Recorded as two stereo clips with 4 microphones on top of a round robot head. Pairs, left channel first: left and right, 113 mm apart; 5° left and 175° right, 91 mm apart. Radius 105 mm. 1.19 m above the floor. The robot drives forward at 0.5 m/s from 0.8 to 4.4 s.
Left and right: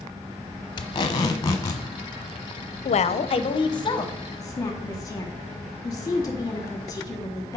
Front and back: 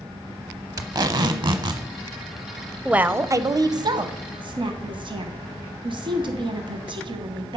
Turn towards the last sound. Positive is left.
turn(degrees=155)